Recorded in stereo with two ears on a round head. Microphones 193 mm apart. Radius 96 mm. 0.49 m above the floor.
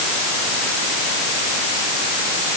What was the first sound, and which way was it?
Only background noise.